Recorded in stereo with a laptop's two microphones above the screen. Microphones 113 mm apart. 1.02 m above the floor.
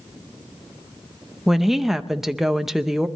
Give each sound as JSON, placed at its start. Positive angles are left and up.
{"t": 1.5, "sound": "a woman speaking", "side_deg": -5, "distance_m": 0.6}